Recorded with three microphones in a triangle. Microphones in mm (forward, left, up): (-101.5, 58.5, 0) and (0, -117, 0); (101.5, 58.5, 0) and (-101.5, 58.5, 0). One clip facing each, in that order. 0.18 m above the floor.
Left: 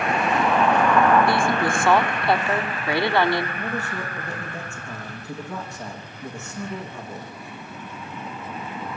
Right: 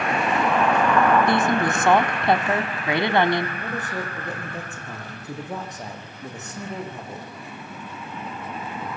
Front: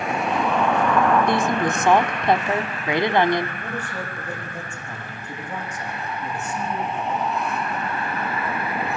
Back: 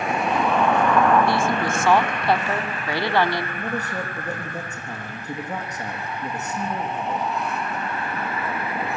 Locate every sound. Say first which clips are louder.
1.3 s a woman speaking: right 1 dB, front 1 dB; 40° right, 1.5 m
3.6 s a man speaking: left 1 dB, back 3 dB; 130° right, 9.5 m